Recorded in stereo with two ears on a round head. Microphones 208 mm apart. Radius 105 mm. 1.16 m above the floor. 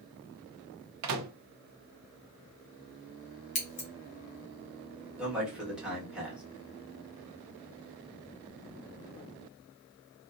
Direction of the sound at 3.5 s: 35° left (ahead or behind).